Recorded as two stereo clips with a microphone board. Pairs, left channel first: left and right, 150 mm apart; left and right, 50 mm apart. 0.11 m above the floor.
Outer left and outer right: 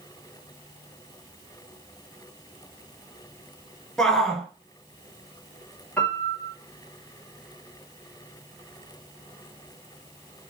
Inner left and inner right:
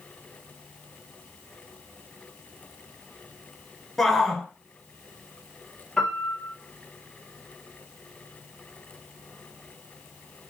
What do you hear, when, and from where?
4.0 s a shout: 5° left (ahead or behind), 1.2 m
6.0 s a piano: 10° left (ahead or behind), 3 m